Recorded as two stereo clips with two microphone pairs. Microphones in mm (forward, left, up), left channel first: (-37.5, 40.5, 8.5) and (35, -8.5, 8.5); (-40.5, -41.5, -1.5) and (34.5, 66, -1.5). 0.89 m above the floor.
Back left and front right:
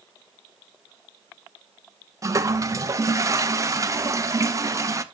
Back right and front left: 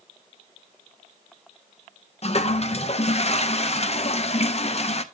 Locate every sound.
2.2 s a toilet flushing: 85° right, 0.6 m